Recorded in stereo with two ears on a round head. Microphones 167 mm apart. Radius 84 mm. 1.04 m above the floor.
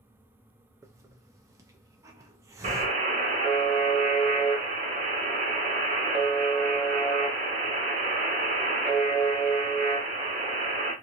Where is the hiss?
15° right (ahead or behind), 0.5 m.